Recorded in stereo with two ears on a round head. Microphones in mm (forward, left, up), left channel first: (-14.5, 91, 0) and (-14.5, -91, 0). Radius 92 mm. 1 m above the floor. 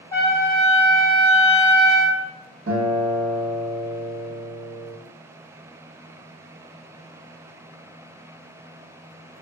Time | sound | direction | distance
0.1 | a trumpet | 10° left (ahead or behind) | 0.7 m
2.7 | a guitar | 45° right (ahead or behind) | 1.3 m